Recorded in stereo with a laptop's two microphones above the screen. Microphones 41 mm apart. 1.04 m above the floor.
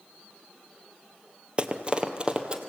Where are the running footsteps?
30° right (ahead or behind), 1.1 m; by 2.6 s 25° right (ahead or behind), 1.6 m.